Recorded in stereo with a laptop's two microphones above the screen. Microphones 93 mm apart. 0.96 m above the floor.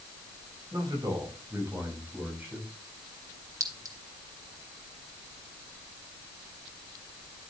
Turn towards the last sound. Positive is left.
turn(degrees=-35)  # may be behind; listen again after turning